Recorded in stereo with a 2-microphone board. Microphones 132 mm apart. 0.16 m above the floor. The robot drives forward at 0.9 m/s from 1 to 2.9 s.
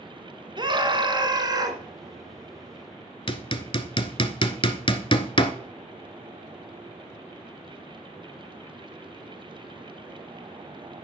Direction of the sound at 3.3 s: 40° left (ahead or behind).